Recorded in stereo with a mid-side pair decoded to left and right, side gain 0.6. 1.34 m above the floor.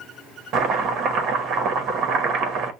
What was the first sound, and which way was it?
Chopping, 55° right.